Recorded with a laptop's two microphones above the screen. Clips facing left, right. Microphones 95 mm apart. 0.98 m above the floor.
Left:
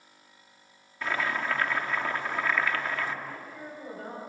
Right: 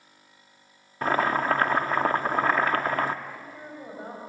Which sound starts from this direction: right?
Boiling, at 1.0 s.